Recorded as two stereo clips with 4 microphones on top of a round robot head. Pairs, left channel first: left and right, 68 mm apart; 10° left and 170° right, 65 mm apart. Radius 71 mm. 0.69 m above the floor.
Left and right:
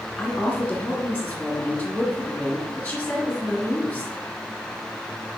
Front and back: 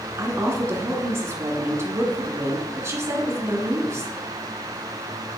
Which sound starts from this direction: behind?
A woman speaking, at 0.2 s.